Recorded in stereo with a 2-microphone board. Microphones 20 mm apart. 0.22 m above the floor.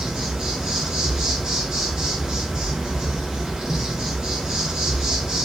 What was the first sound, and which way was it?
An insect, 30° right (ahead or behind).